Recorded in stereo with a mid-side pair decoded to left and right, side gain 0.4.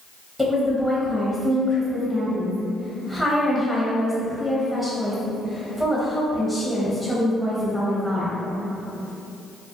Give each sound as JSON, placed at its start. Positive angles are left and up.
{"t": 0.4, "sound": "a woman speaking", "azimuth_deg": -5, "distance_m": 0.8}